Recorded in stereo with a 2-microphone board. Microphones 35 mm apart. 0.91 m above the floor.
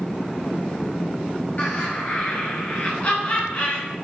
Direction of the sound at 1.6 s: 45° left (ahead or behind).